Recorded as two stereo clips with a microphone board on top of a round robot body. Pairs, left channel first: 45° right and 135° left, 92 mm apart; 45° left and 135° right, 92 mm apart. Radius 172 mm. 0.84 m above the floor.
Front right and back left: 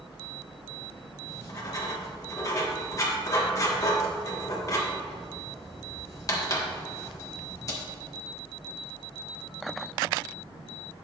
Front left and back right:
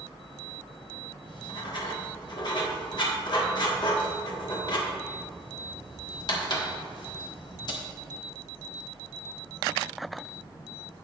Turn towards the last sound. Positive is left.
turn(degrees=5)